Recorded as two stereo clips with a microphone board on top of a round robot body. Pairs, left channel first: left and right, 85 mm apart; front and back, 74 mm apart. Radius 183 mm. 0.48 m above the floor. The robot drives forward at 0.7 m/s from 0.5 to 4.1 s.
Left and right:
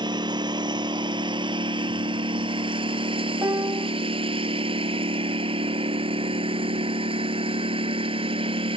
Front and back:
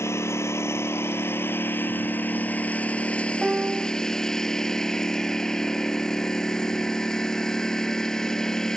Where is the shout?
No shout in this recording.